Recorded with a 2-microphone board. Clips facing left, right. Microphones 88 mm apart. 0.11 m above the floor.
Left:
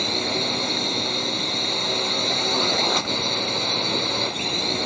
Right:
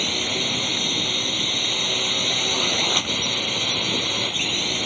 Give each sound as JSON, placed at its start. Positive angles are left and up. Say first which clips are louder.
{"t": 0.0, "sound": "a drone", "louder": "left 2 dB", "side_deg": 15}